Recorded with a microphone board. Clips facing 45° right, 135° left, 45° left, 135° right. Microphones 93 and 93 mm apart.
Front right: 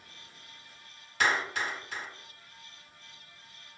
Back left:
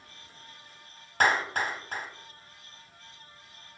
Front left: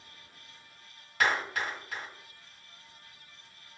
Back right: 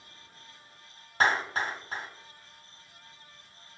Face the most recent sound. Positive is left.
turn(degrees=170)